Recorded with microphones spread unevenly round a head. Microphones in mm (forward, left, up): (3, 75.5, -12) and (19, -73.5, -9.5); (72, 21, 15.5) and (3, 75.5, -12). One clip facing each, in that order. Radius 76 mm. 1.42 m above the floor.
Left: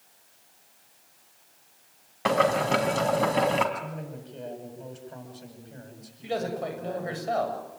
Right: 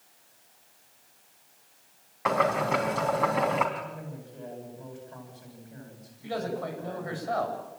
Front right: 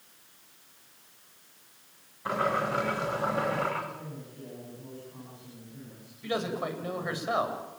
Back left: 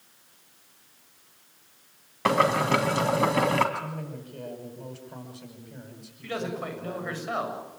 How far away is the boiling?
About 4 m.